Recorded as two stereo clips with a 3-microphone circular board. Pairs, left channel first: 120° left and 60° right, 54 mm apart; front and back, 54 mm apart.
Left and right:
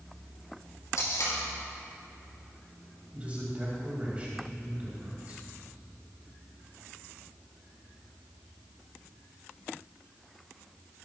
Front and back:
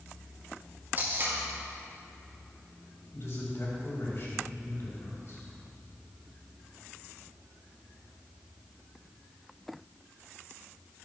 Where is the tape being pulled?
125° left, 4 m.